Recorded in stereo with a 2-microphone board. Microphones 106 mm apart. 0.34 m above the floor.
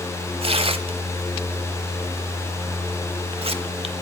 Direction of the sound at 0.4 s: 65° right (ahead or behind).